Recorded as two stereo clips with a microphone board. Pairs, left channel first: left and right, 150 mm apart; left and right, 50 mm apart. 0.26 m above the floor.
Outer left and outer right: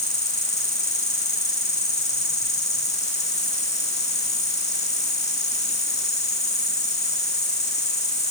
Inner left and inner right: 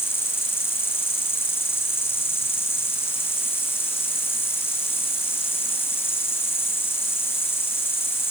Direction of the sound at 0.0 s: 45° left (ahead or behind).